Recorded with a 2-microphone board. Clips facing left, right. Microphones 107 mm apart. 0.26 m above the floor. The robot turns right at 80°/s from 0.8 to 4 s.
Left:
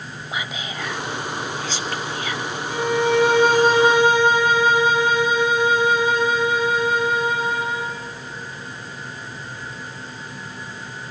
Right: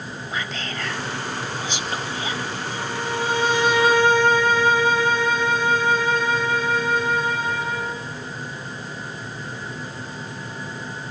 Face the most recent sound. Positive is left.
turn(degrees=165)